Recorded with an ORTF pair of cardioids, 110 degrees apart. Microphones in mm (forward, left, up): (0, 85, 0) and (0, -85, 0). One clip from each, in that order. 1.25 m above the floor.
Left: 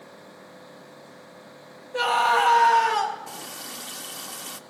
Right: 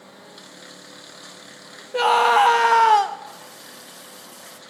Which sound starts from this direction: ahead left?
A running tap, at 3.3 s.